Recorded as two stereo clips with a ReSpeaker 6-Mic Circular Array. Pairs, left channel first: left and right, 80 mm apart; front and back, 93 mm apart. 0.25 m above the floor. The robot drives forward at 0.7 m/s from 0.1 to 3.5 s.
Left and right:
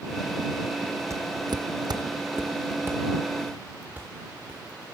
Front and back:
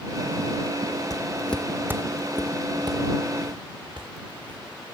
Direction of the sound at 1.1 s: 45° right.